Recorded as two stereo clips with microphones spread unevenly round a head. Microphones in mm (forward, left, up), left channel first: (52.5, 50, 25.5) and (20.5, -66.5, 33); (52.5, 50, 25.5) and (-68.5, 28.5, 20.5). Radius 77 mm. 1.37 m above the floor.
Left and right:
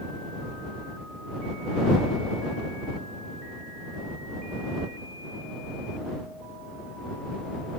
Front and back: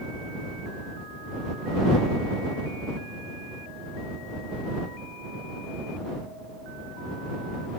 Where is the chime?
I don't hear a chime.